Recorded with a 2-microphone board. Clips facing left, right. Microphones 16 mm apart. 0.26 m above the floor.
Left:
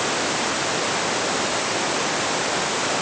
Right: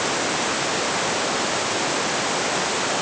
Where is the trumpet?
No trumpet in this recording.